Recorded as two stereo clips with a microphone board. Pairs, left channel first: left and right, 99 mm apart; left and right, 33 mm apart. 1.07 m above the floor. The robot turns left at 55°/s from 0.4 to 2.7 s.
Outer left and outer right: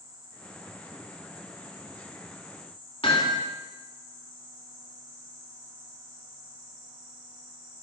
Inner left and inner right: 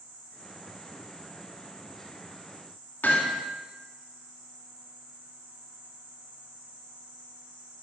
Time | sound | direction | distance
3.0 | hammering | 65° left (ahead or behind) | 2 m